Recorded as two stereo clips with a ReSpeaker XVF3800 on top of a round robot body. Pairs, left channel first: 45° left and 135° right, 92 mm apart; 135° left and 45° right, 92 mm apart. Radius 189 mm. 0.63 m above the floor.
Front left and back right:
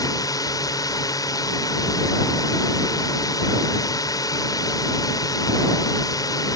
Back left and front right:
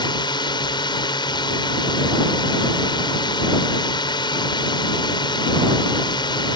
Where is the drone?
95° left.